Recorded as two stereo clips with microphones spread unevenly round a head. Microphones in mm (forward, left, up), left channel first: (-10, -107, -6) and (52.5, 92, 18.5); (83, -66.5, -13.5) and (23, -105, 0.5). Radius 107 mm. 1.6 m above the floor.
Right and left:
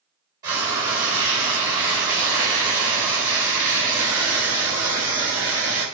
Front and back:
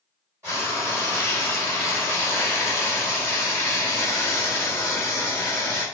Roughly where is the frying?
Behind left.